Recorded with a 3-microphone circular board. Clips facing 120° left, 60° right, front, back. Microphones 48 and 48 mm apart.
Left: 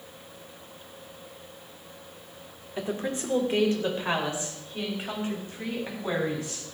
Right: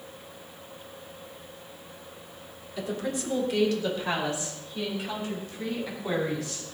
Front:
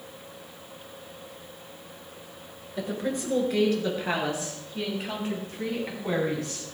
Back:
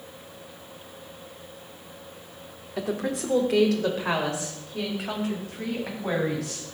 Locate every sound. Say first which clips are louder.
2.8 s a woman speaking: left 1 dB, back 2 dB; straight behind, 3 m; by 6.7 s 175° right, 8.5 m